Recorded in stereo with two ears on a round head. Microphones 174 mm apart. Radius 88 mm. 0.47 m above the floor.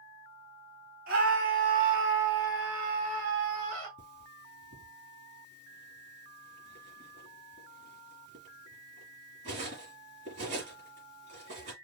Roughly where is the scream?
Right.